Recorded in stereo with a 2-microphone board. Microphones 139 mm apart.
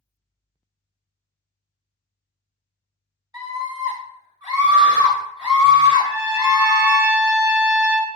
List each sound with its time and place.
3.3 s a scream: 30° right (ahead or behind), 1.5 m
6.0 s a trumpet: 15° right (ahead or behind), 1.3 m